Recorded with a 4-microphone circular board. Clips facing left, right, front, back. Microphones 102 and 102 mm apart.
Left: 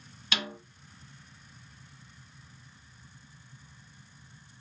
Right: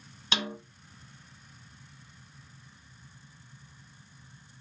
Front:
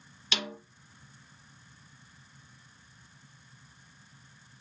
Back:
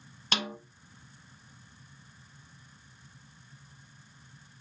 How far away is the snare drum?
About 1.3 m.